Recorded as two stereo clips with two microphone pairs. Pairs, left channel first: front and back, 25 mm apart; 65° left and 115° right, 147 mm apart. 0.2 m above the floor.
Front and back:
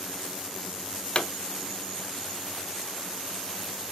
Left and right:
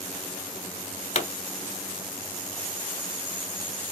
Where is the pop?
35° left, 1.1 m.